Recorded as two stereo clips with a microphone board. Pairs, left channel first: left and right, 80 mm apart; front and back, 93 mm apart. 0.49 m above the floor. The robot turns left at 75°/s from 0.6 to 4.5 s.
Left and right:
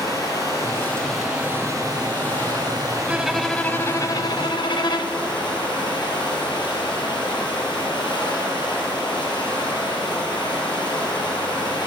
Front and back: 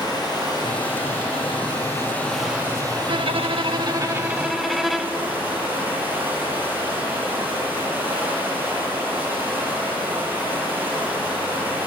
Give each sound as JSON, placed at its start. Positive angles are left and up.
{"t": 0.0, "sound": "running water", "azimuth_deg": 45, "distance_m": 5.0}
{"t": 3.1, "sound": "a violin", "azimuth_deg": -160, "distance_m": 0.6}